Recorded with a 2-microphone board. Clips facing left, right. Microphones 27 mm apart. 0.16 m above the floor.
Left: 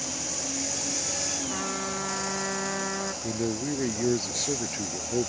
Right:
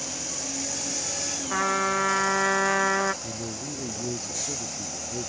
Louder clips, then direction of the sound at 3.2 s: Left 5 dB; 55° left (ahead or behind).